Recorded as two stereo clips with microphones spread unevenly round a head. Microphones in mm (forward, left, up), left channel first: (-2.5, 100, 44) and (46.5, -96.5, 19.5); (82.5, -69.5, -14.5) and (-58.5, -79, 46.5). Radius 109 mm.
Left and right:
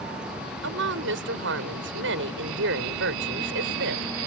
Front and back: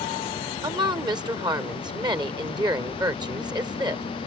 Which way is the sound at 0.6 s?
110° right.